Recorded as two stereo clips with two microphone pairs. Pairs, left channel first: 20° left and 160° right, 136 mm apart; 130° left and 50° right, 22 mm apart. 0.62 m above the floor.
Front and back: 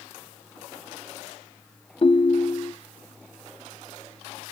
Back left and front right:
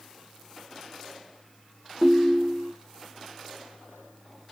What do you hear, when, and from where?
2.0 s a ringtone: 15° left, 0.6 m